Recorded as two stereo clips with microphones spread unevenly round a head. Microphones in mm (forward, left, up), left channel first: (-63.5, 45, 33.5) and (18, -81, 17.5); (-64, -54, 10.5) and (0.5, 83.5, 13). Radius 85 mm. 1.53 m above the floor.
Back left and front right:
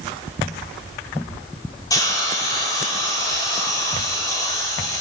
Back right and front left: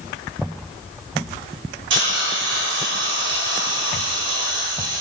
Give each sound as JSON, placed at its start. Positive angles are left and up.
{"t": 1.9, "sound": "a hiss", "azimuth_deg": 55, "distance_m": 5.0}